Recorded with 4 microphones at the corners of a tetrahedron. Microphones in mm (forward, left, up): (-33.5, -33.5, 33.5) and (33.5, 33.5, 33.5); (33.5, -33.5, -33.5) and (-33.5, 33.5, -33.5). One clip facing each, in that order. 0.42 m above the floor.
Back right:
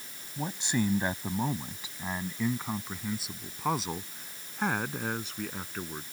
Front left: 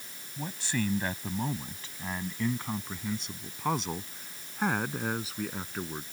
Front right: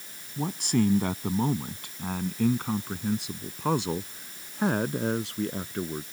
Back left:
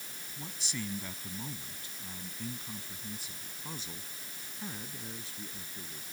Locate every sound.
0.4 s a man speaking: 70° right; by 6.0 s 40° right